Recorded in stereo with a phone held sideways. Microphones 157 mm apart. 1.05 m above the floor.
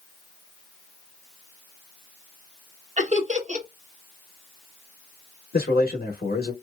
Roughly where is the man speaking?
Left.